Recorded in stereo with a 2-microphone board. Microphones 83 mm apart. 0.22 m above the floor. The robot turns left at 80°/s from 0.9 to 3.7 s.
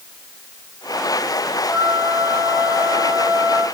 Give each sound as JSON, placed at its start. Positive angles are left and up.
{"t": 1.7, "sound": "a flute", "azimuth_deg": 105, "distance_m": 5.0}